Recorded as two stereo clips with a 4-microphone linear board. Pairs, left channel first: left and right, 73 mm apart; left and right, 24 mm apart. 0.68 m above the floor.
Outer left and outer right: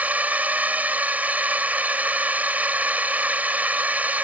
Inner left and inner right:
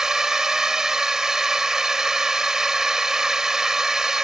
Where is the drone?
20° right (ahead or behind).